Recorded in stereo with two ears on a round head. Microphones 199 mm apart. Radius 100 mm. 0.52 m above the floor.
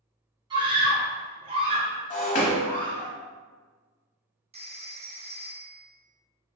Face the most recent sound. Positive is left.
turn(degrees=-30)  # may be behind; listen again after turning